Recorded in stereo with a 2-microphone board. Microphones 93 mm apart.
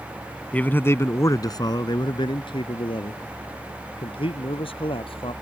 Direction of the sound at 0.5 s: 15° left (ahead or behind).